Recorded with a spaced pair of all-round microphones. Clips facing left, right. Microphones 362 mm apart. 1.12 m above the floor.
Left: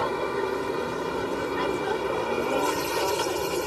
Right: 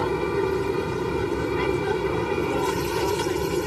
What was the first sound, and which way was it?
An aircraft, 40° right (ahead or behind).